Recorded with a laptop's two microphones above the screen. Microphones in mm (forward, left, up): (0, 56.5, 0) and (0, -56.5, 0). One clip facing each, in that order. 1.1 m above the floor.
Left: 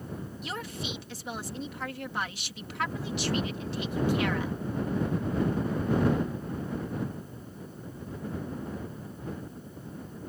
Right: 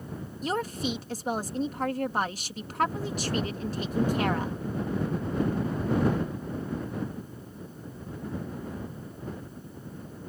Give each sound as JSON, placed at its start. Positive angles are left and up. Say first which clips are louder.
{"t": 0.4, "sound": "a woman speaking", "louder": "right 10 dB", "side_deg": -40}